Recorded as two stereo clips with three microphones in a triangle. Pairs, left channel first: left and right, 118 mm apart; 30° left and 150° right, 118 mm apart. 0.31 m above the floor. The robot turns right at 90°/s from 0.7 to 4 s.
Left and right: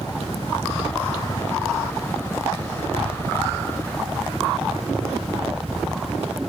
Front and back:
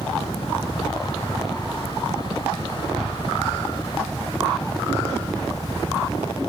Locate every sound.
0.0 s a helicopter: 55° left; by 6.5 s 10° right